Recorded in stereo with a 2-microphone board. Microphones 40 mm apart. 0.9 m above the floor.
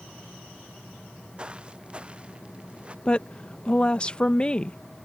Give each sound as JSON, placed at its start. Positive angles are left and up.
{"t": 1.4, "sound": "footsteps", "side_deg": -20}
{"t": 3.0, "sound": "a woman speaking", "side_deg": 25}